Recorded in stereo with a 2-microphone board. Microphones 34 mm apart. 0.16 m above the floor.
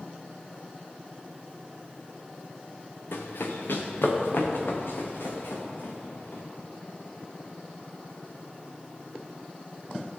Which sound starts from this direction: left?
Running footsteps, at 3.1 s.